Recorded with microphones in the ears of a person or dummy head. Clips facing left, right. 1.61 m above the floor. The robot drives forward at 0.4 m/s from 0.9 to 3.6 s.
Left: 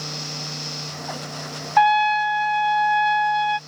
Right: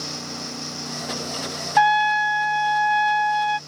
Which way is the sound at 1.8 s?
5° right (ahead or behind).